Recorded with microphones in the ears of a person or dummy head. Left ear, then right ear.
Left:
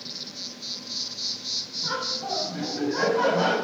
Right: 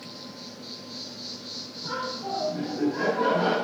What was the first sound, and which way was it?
An insect, 35° left (ahead or behind).